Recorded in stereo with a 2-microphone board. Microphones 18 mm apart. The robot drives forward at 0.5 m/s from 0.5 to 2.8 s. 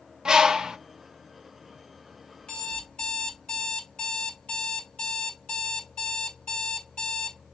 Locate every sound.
0.2 s a bird: 40° right (ahead or behind), 0.6 m; by 0.8 s 45° right (ahead or behind), 0.5 m
2.4 s an alarm clock: 70° left (ahead or behind), 2.0 m; by 7.4 s 75° left (ahead or behind), 1.9 m